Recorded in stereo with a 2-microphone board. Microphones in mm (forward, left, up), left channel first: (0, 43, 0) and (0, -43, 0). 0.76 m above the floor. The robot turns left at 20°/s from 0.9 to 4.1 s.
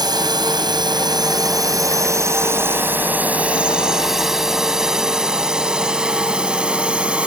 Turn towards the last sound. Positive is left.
turn(degrees=-15)  # may be behind; listen again after turning